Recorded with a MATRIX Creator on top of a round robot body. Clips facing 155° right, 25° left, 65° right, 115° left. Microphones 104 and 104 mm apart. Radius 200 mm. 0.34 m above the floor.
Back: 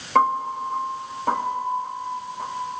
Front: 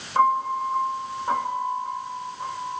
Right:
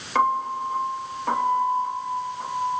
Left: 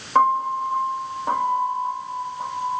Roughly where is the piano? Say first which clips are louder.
Even, left 4 dB; behind.